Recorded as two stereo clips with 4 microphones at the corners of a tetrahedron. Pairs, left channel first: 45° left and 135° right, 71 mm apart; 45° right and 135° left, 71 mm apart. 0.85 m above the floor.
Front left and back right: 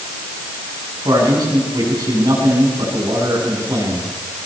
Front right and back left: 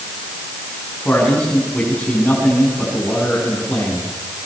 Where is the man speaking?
120° right, 9.5 m.